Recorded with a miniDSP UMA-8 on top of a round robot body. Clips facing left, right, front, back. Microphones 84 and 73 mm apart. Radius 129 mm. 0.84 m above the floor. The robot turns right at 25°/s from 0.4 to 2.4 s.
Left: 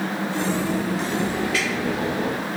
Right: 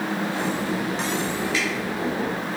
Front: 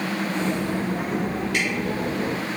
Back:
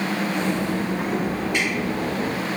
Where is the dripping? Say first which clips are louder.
Left 1 dB, back 1 dB; 30° right, 1.8 m.